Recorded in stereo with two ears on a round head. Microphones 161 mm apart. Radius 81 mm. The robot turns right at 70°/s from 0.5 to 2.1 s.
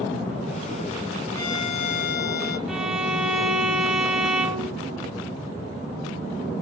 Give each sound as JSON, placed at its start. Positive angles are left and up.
{"t": 1.3, "sound": "a violin", "azimuth_deg": 15, "distance_m": 2.0}
{"t": 2.7, "sound": "a violin", "side_deg": -5, "distance_m": 2.0}